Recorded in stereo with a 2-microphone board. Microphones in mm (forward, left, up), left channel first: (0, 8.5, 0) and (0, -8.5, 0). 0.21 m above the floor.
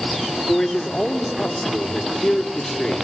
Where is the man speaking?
70° left (ahead or behind), 4 m.